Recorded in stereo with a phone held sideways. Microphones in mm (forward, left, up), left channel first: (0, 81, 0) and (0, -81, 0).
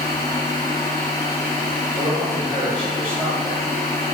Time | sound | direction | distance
0.0 | a machine running | 20° left (ahead or behind) | 1.2 m
1.9 | a man speaking | 30° right (ahead or behind) | 1.0 m